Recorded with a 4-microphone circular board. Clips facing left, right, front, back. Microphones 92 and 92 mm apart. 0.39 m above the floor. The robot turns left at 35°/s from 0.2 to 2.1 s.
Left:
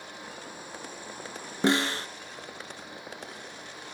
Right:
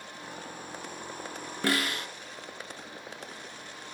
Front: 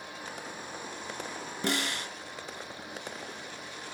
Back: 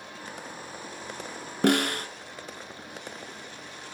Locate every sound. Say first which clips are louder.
1.6 s a snare drum: left 4 dB, back 9 dB; 155° left, 0.7 m; by 2.1 s 140° left, 0.7 m